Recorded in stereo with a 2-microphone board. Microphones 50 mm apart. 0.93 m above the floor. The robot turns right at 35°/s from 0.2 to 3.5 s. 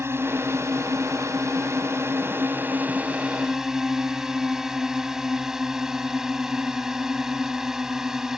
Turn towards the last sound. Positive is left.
turn(degrees=-10)